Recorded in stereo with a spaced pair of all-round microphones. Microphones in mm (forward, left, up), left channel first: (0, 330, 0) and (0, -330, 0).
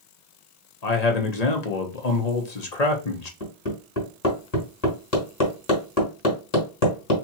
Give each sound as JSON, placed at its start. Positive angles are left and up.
{"t": 0.8, "sound": "a man speaking", "side_deg": 65, "distance_m": 1.2}
{"t": 3.4, "sound": "hammering", "side_deg": 55, "distance_m": 2.5}